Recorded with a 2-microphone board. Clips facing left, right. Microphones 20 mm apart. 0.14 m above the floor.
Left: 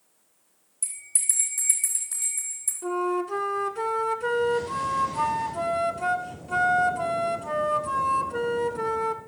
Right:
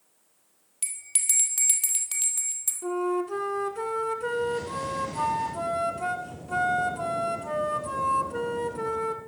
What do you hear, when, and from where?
0.8 s a bell: 70° right (ahead or behind), 2 m
2.8 s a flute: 15° left (ahead or behind), 1.0 m